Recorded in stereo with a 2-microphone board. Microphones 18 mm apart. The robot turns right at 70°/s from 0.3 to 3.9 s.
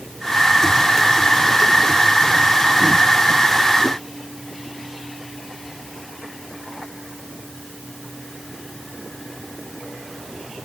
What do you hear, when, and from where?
Only background noise.